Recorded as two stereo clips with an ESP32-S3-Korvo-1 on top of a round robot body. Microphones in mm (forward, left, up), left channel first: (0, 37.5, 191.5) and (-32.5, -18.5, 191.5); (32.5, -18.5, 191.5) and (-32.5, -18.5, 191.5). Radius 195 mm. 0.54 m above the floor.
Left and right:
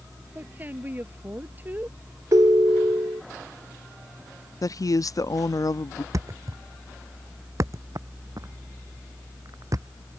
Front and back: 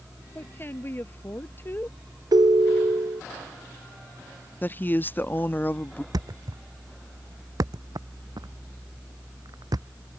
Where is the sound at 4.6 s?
55° left.